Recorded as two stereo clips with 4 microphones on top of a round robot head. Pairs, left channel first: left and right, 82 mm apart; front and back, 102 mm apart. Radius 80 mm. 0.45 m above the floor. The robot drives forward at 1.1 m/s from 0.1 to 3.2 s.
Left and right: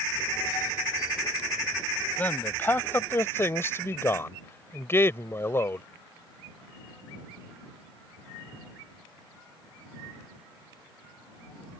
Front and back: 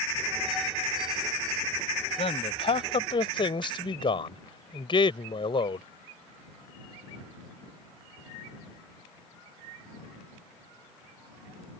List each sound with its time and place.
2.2 s a man speaking: 20° left; by 5.8 s 35° left